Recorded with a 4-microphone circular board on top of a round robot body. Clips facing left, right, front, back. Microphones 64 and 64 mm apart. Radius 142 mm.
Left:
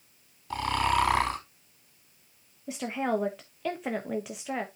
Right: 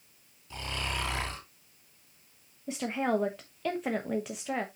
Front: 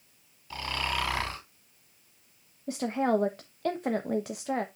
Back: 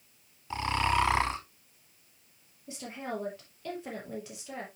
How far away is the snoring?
About 3.5 m.